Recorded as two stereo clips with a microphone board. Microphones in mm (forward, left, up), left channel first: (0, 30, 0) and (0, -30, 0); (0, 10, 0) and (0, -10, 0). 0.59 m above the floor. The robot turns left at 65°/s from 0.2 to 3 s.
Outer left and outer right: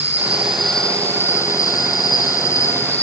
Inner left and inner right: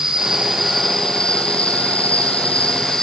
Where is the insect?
150° right, 1.0 m; by 3.0 s 30° left, 1.0 m.